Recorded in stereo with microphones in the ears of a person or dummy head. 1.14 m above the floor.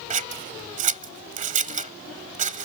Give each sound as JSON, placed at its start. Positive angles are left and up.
{"t": 0.1, "sound": "scissors", "side_deg": -40}